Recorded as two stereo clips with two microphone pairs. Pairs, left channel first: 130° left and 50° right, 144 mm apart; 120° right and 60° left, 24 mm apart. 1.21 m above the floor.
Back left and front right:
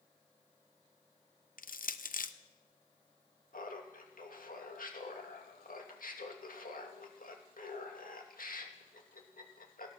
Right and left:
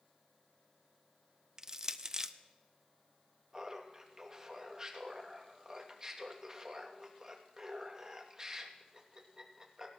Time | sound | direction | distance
1.6 | crushing | 125° left | 0.6 m
3.5 | laughter | 125° left | 2.5 m